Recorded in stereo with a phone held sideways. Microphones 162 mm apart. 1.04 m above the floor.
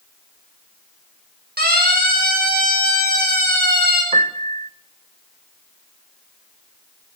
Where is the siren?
80° right, 7.5 m.